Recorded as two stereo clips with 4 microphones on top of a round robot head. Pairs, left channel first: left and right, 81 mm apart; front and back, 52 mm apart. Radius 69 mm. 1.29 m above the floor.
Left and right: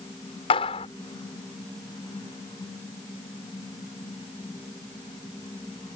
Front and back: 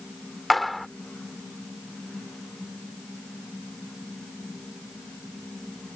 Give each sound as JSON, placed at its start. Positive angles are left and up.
{"t": 0.5, "sound": "a clap", "azimuth_deg": 90}